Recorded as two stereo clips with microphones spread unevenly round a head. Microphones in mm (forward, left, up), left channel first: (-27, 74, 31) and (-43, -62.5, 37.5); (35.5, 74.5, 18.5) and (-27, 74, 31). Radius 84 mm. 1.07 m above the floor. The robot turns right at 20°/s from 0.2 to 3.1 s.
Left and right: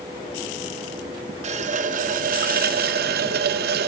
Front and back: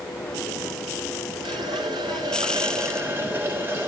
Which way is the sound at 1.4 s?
135° right.